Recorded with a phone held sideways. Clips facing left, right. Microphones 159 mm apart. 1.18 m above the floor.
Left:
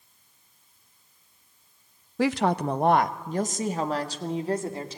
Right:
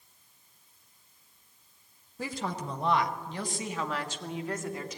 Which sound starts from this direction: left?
A woman speaking, at 2.2 s.